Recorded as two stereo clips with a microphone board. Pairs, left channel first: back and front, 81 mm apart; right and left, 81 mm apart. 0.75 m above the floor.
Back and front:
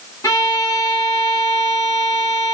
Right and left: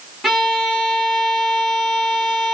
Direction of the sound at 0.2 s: 175° left.